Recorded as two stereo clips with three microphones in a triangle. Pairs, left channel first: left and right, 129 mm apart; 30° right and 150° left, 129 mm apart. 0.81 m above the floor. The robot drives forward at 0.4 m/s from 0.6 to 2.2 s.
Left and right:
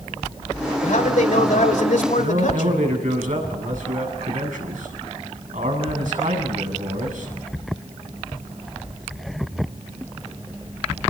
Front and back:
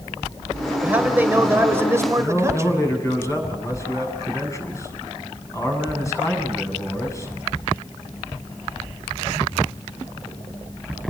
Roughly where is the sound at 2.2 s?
Right.